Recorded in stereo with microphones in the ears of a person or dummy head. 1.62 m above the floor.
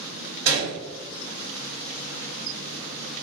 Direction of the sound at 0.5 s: 60° right (ahead or behind).